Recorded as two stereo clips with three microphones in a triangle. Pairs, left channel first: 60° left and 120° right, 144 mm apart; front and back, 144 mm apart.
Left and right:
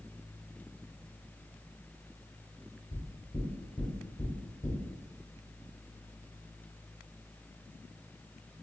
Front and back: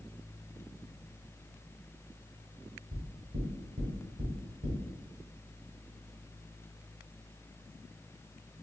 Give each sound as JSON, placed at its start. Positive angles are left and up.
{"t": 2.9, "sound": "knocking", "azimuth_deg": 125, "distance_m": 1.5}